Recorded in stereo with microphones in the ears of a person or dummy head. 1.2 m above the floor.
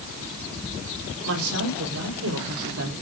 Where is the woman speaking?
75° right (ahead or behind), 3.5 m; by 2.9 s 85° right, 3 m.